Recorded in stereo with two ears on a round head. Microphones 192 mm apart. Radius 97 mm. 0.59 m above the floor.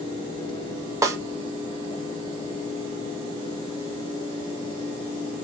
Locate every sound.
1.0 s a snare drum: 15° right (ahead or behind), 0.5 m